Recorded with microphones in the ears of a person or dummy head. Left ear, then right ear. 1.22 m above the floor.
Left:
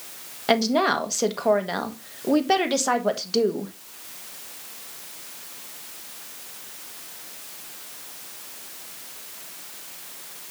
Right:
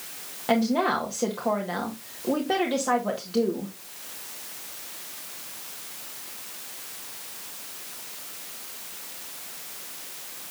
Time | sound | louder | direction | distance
0.5 | a woman speaking | left 3 dB | 75° left (ahead or behind) | 1.6 m